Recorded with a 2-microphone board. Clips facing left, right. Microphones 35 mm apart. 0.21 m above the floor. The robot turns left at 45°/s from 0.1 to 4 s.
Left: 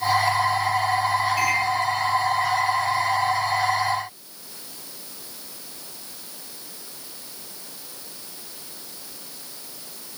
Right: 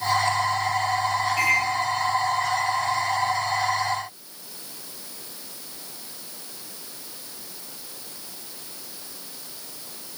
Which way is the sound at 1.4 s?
5° right (ahead or behind).